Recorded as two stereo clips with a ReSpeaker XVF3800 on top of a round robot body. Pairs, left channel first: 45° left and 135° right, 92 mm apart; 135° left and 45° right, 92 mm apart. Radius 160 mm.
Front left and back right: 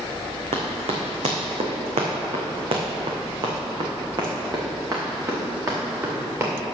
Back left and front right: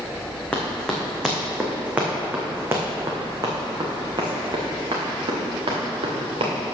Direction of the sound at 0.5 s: 145° right.